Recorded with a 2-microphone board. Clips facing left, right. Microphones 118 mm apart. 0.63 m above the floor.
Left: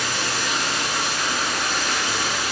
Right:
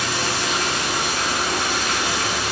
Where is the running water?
75° right (ahead or behind), 1.8 m.